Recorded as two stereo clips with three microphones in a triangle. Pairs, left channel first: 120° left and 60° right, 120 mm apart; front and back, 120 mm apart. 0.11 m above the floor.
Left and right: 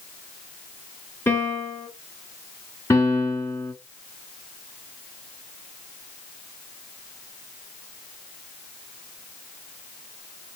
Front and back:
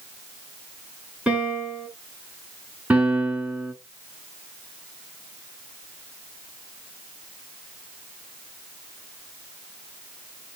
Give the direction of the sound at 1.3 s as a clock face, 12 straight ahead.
8 o'clock.